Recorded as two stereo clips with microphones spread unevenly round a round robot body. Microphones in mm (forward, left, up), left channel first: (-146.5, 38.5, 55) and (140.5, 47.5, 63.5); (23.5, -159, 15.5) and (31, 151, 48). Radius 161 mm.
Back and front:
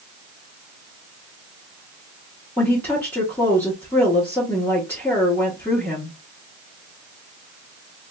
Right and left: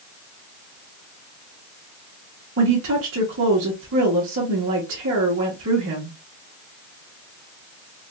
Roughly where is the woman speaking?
Left.